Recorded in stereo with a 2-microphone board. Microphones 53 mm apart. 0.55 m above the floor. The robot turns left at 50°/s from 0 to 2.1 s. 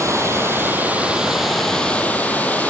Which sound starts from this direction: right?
Running water, at 0.0 s.